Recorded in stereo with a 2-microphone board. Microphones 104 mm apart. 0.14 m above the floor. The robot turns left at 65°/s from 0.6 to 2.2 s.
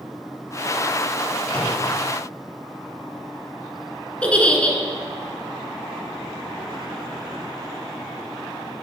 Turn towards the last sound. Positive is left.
turn(degrees=10)  # may be behind; listen again after turning